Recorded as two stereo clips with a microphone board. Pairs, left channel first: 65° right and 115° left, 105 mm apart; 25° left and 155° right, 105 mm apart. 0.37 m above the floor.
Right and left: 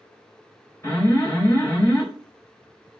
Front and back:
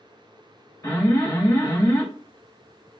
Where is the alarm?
10° right, 2.0 m.